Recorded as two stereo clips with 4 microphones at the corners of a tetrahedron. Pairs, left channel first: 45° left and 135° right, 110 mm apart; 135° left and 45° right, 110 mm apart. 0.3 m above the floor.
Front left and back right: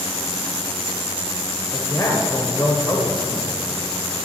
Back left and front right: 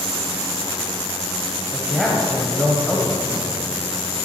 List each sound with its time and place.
1.7 s a man speaking: 50° left, 1.2 m